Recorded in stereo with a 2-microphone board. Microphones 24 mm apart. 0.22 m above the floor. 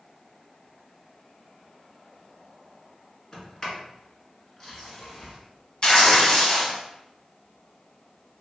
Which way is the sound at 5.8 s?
35° left (ahead or behind).